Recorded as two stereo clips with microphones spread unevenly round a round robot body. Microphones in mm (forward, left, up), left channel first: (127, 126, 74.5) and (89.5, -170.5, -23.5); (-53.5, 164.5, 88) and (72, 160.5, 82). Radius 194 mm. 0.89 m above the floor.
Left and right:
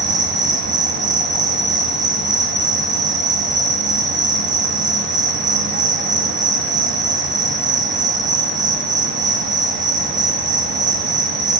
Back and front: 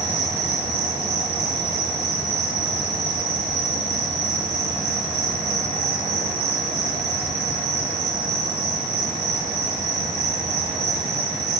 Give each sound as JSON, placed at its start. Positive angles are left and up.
{"t": 0.0, "sound": "an insect", "azimuth_deg": -45, "distance_m": 0.9}